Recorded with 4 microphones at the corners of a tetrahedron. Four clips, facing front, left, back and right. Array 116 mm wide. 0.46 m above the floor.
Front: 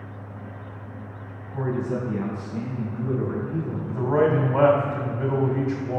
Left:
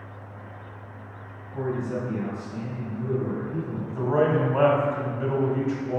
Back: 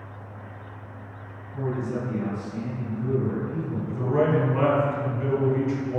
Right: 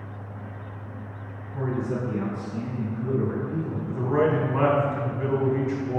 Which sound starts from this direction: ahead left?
A man speaking, at 3.9 s.